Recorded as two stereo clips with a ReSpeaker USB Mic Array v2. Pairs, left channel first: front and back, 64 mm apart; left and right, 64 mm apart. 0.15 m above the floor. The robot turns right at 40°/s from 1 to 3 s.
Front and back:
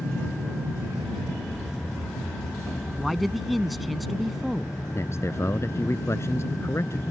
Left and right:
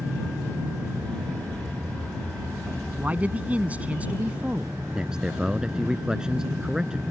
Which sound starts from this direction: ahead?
A man speaking, at 5.0 s.